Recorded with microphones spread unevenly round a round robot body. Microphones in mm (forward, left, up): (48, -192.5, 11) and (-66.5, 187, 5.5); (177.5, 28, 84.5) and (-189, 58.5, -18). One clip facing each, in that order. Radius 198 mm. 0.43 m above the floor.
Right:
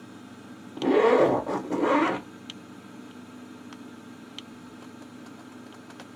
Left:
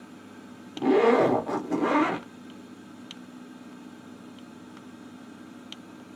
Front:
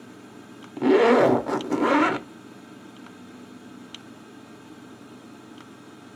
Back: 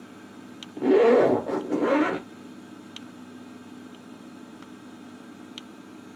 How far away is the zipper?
About 0.8 m.